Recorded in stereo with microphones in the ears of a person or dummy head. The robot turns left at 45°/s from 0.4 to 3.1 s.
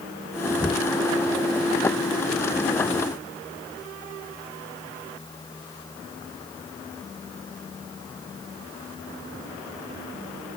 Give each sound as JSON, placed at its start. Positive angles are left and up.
{"t": 0.6, "sound": "knocking", "side_deg": 10}